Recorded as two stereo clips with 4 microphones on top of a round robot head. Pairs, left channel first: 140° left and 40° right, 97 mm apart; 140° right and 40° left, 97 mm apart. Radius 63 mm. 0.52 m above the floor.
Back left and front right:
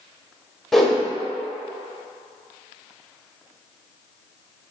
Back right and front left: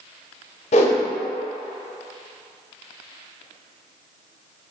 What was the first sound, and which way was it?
A whoosh, 135° right.